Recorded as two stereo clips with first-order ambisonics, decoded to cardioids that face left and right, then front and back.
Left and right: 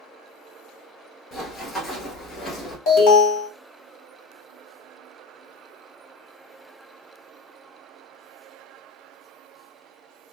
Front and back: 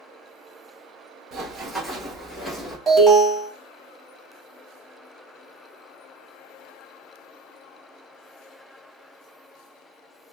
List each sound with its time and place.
1.3 s running footsteps: 140° left, 1.3 m; by 2.8 s 65° left, 1.2 m
2.9 s an alarm: 95° left, 1.6 m